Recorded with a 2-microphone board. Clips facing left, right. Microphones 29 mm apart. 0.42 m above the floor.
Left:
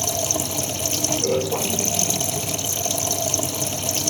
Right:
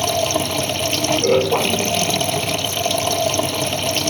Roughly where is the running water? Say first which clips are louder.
Right 6 dB; right.